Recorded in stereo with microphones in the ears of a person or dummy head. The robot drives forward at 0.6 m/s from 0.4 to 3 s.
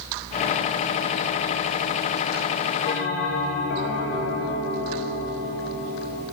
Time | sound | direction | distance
2.9 | a bell | 50° left (ahead or behind) | 0.8 m